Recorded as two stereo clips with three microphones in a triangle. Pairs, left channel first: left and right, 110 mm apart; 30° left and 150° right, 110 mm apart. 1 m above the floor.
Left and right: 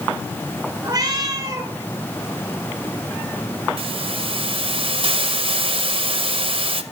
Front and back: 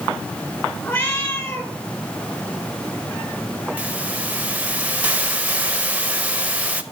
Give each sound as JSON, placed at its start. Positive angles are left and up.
{"t": 0.8, "sound": "a cat meowing", "azimuth_deg": -35, "distance_m": 1.4}
{"t": 3.8, "sound": "a hiss", "azimuth_deg": -75, "distance_m": 0.6}